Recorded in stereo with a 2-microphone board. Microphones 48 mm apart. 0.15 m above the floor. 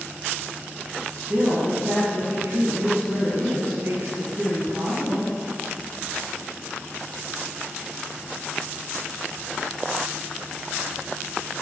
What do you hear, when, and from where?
1.1 s a woman speaking: 55° right (ahead or behind), 2.5 m